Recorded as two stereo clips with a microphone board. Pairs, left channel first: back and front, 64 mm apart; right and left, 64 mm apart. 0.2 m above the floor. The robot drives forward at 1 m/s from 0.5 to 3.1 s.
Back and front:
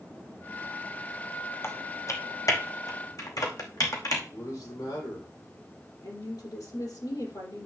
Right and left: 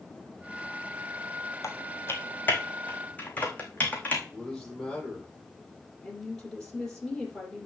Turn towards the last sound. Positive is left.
turn(degrees=-175)